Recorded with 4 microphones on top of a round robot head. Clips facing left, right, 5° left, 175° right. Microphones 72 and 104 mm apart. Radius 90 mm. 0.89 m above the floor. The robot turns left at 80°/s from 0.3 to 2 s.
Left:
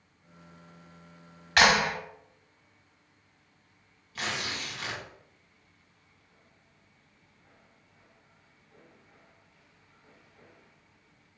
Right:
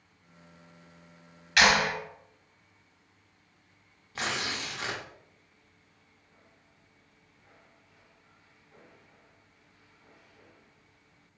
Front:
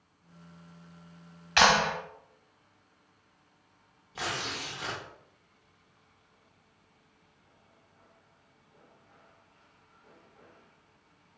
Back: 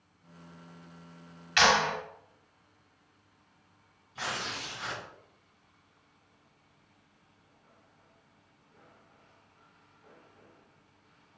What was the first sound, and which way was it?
A clap, 45° left.